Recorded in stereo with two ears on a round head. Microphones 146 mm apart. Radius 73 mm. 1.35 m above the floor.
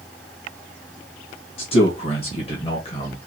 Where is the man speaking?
35° left (ahead or behind), 1.5 m.